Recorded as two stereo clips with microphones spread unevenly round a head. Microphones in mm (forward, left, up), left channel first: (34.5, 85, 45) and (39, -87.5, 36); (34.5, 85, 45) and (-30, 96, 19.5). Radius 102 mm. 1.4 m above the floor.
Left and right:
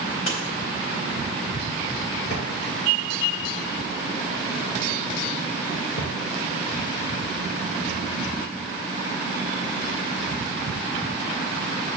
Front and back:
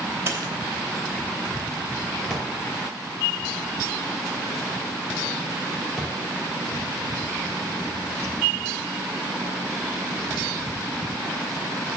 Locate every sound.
0.3 s a dropped coin: 110° left, 3.5 m
2.3 s a drawer: 75° left, 2.5 m